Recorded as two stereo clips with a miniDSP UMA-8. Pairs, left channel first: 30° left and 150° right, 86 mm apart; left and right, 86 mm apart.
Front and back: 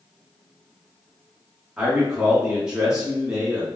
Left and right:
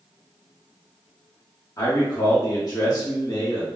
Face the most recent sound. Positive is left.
turn(degrees=130)